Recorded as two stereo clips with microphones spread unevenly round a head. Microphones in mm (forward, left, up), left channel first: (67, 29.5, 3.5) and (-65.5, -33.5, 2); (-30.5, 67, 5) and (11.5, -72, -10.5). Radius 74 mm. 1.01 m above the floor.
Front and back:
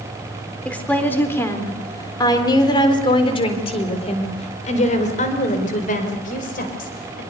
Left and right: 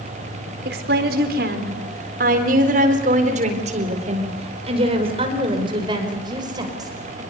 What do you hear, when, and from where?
0.7 s a woman speaking: 55° right, 4 m; by 7.2 s 5° right, 5.5 m